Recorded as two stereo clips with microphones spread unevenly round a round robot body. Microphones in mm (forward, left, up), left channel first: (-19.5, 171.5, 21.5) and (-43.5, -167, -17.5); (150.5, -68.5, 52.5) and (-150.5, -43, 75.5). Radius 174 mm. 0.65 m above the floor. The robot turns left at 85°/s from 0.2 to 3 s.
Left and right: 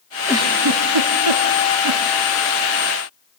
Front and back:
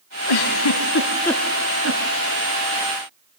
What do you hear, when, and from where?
0.3 s a giggle: 5° right, 1.5 m; by 2.0 s 150° right, 1.5 m